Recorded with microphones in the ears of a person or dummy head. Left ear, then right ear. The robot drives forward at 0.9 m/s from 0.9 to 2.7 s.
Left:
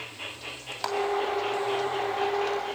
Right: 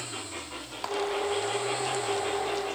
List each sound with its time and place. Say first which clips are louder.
0.8 s a clap: left 3 dB; 15° left (ahead or behind), 3 m